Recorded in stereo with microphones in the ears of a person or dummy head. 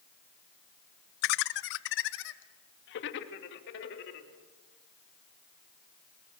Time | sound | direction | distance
1.2 | laughter | 55° left (ahead or behind) | 0.9 m